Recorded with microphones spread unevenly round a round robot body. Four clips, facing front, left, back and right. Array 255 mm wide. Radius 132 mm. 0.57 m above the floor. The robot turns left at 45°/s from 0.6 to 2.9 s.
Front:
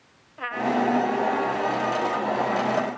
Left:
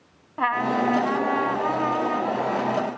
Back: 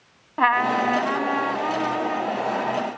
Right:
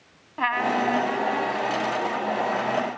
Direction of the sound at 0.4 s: 170° right.